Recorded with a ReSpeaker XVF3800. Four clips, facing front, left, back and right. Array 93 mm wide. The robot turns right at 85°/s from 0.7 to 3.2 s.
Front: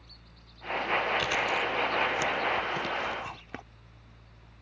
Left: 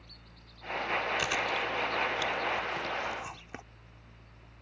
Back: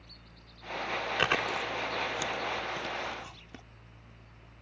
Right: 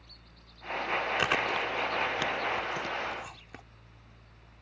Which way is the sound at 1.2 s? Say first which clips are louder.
Right 2 dB, front 1 dB; 150° right.